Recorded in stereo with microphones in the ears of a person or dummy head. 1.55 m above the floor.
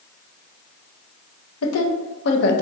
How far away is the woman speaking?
About 0.9 m.